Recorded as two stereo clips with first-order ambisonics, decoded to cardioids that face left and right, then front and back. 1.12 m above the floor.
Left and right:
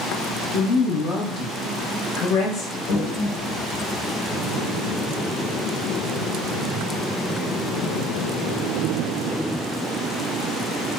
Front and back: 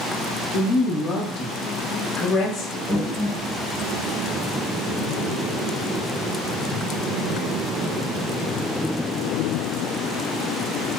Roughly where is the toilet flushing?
Left.